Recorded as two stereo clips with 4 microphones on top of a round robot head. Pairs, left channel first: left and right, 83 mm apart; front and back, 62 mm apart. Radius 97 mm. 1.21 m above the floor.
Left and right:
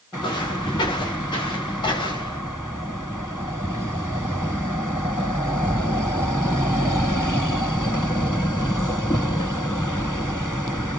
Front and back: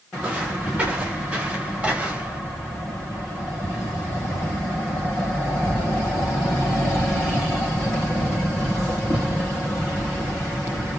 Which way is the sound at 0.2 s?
120° left.